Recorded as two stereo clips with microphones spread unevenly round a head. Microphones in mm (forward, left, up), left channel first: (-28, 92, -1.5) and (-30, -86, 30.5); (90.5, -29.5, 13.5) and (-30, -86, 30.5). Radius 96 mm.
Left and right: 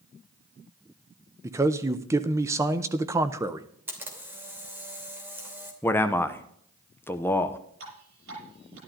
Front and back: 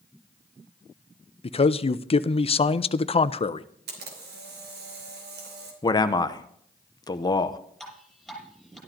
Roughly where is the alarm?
No alarm in this recording.